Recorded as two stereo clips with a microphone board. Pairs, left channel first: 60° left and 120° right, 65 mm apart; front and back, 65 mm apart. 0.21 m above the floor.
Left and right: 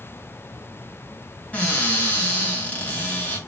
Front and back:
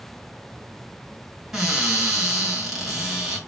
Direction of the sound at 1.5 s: 95° left.